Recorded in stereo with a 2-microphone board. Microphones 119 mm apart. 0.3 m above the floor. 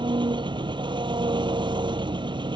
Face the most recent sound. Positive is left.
turn(degrees=-40)  # may be behind; listen again after turning